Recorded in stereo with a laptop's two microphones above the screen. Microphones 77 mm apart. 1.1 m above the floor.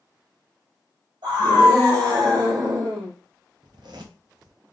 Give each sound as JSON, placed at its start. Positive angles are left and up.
{"t": 1.2, "sound": "a scream", "side_deg": -70, "distance_m": 2.0}
{"t": 3.6, "sound": "a zipper", "side_deg": -65, "distance_m": 0.6}